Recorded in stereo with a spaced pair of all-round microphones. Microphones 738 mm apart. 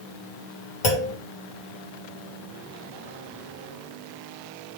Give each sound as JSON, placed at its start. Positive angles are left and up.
{"t": 0.8, "sound": "a clunk", "side_deg": 75, "distance_m": 1.8}